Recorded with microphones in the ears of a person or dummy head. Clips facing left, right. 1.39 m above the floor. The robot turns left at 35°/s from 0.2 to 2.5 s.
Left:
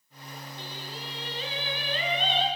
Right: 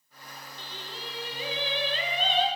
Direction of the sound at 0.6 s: 15° left.